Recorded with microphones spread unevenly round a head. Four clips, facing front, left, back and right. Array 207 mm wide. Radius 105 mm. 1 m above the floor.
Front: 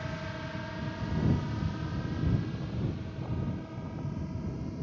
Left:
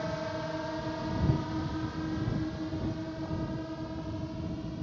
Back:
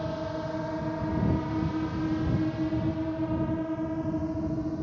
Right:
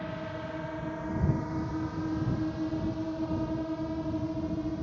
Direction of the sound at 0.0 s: 160° left.